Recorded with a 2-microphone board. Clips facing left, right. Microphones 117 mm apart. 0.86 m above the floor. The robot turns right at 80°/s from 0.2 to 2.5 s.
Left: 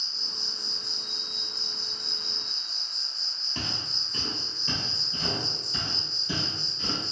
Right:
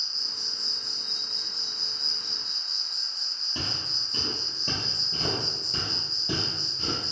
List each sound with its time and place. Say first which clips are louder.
0.0 s an insect: left 1 dB; 175° left, 1.1 m; by 7.1 s 5° right, 1.1 m
3.5 s footsteps: even; 20° right (ahead or behind), 1.2 m; by 7.0 s 55° right (ahead or behind), 1.9 m